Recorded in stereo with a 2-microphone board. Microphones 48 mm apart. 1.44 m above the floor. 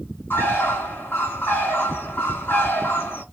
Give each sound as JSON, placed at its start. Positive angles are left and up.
{"t": 0.3, "sound": "a bird", "side_deg": 50, "distance_m": 2.0}